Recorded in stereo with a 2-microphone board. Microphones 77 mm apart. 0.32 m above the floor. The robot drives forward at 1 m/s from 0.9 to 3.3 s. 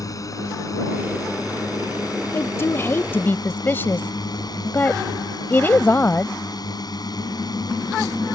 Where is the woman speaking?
35° left (ahead or behind); by 6.4 s 30° left (ahead or behind).